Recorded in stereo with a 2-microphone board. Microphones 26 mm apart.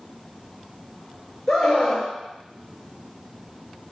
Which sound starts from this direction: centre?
A scream, at 1.5 s.